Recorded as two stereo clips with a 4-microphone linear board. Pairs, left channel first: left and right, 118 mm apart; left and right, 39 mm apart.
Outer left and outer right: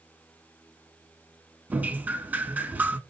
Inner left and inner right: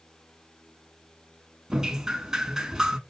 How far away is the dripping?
About 0.9 m.